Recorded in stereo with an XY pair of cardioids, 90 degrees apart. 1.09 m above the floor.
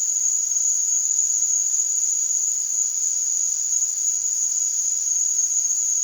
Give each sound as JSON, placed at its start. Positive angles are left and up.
{"t": 0.0, "sound": "an insect", "azimuth_deg": 25, "distance_m": 1.6}